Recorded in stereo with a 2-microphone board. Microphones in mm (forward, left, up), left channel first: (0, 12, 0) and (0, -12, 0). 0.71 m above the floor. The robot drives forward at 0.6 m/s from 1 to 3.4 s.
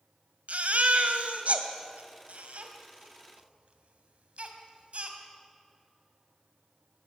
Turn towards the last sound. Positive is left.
turn(degrees=-60)  # may be behind; listen again after turning